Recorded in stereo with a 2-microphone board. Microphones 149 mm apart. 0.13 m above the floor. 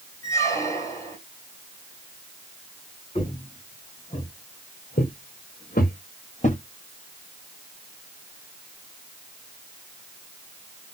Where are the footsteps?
40° left (ahead or behind), 2 m; by 6.6 s 55° left (ahead or behind), 1.4 m.